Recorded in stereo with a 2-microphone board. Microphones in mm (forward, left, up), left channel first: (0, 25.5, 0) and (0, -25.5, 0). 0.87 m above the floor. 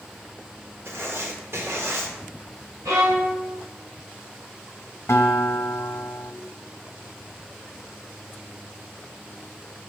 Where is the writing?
60° right (ahead or behind), 1.4 m.